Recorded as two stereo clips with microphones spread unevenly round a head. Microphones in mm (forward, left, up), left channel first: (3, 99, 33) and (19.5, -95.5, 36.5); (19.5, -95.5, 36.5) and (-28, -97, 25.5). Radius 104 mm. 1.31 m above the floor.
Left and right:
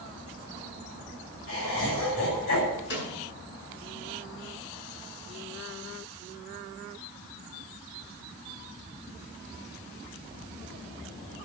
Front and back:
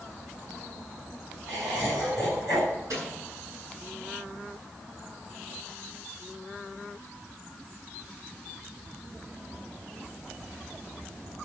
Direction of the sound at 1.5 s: 110° left.